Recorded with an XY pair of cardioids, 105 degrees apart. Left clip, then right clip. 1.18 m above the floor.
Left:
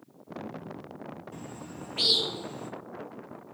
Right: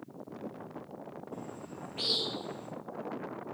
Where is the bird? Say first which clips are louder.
Even; 55° left, 1.2 m.